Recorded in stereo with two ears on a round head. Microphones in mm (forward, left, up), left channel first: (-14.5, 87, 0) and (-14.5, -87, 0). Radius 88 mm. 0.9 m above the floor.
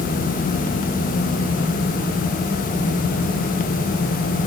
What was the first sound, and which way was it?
Only background noise.